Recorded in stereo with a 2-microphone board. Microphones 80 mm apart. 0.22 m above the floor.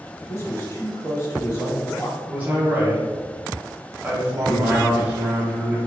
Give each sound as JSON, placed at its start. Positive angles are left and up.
{"t": 0.3, "sound": "a man speaking", "side_deg": 35, "distance_m": 1.3}
{"t": 2.3, "sound": "a man speaking", "side_deg": -20, "distance_m": 1.0}